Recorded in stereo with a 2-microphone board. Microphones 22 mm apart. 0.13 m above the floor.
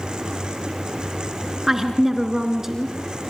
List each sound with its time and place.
1.7 s a woman speaking: 20° right (ahead or behind), 1.9 m